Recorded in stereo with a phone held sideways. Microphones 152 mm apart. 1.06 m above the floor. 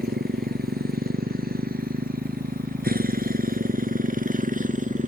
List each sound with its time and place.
0.0 s a motorcycle: 85° right; by 5.1 s 55° right (ahead or behind)